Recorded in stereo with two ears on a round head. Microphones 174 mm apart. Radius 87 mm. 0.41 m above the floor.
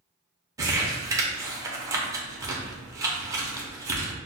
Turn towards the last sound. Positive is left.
turn(degrees=-15)  # may be behind; listen again after turning